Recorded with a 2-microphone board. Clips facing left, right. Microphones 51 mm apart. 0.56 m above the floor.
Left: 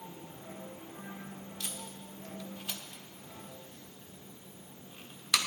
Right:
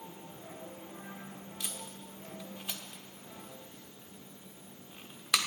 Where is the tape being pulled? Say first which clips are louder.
Right 1 dB; 15° right (ahead or behind), 1.1 m.